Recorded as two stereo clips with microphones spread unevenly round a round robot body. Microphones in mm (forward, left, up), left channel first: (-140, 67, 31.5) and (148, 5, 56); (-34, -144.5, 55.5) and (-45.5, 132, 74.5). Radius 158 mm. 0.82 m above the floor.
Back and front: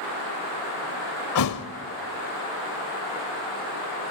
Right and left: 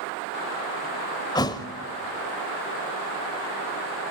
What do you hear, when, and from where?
1.4 s a thud: 165° right, 0.8 m